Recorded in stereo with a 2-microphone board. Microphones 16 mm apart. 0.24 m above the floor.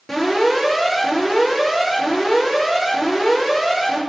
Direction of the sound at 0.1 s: 25° left (ahead or behind).